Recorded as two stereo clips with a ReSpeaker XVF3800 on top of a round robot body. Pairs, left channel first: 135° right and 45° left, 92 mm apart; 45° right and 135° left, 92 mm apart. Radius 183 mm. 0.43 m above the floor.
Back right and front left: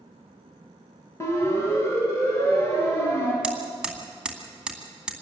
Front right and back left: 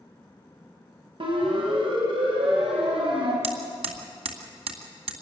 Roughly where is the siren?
Behind.